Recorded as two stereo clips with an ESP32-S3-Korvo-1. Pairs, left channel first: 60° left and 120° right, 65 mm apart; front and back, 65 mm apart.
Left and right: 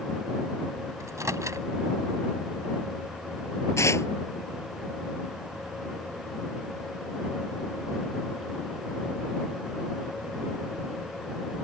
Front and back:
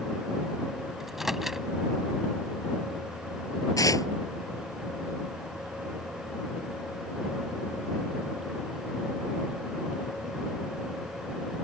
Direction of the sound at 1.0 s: 95° right.